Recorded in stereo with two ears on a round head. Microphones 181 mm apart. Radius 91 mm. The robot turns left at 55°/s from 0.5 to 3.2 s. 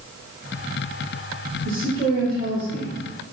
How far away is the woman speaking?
About 4.5 m.